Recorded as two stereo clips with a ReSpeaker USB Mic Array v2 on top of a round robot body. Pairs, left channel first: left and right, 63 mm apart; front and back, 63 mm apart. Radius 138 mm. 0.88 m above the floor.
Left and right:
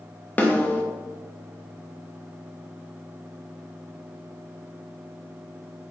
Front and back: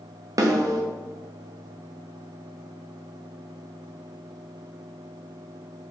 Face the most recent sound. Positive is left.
turn(degrees=155)